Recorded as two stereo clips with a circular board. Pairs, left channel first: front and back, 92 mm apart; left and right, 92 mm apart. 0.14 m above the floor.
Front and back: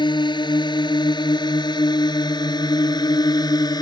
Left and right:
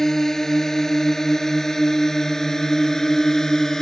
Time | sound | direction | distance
0.0 | a drone | 5° left | ?